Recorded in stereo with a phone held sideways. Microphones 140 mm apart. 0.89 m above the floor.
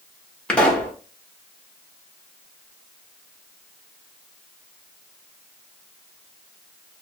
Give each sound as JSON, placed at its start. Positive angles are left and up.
{"t": 0.5, "sound": "a pop", "side_deg": 10, "distance_m": 0.8}